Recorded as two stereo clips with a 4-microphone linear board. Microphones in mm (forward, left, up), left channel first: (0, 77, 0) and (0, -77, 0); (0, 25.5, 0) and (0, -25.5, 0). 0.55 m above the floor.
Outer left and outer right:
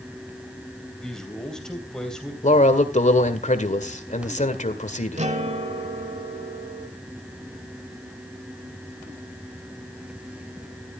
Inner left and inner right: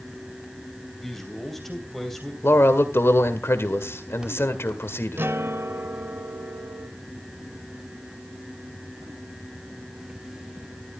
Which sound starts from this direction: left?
A man speaking, at 2.4 s.